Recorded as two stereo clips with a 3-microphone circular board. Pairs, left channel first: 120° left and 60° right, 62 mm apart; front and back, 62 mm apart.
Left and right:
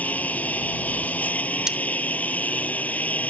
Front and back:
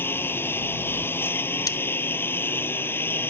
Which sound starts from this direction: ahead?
Cutlery clinking, at 1.7 s.